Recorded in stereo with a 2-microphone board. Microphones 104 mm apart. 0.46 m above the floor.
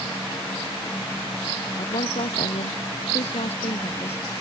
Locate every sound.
1.8 s a woman speaking: 80° left